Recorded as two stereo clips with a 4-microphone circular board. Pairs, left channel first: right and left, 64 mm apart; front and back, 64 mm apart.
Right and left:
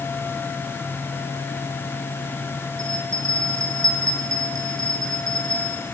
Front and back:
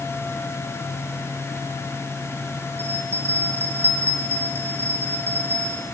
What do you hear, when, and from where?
2.8 s a bell: 125° left, 4.5 m